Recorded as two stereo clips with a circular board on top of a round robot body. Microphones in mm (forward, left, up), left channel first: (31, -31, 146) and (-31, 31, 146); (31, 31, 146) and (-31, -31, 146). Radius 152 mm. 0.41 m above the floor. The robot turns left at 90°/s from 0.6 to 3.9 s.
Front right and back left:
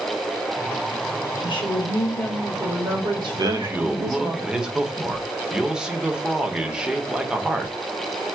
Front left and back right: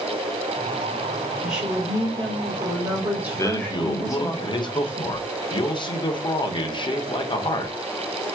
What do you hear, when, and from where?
1.4 s a woman speaking: 40° right, 3.5 m; by 4.3 s 95° left, 3.5 m
3.3 s a man speaking: 105° left, 1.4 m; by 7.8 s 55° left, 1.4 m